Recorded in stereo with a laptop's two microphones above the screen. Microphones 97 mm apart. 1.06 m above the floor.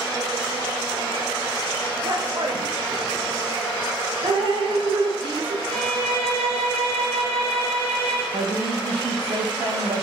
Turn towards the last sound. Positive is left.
turn(degrees=-70)  # may be behind; listen again after turning